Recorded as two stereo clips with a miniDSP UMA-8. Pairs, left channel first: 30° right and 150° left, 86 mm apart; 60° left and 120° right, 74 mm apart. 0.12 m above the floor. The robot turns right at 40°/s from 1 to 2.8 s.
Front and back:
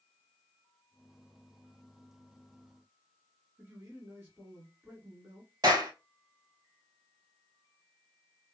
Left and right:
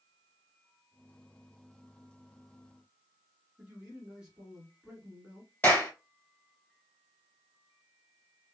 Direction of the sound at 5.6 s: 125° left.